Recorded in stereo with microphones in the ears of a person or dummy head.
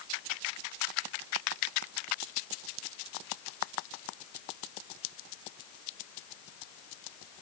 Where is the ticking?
No ticking in this recording.